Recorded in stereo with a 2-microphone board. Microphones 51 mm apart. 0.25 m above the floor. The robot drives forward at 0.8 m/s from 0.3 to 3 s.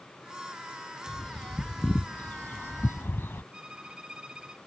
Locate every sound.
1.1 s a bird: 20° left (ahead or behind); by 3.4 s 50° left (ahead or behind)
3.5 s a violin: 20° right (ahead or behind)